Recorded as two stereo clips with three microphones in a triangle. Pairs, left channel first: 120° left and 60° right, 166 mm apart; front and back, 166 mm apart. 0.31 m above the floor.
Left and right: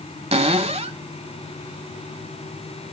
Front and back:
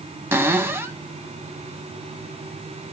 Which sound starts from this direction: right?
A cupboard door, at 0.3 s.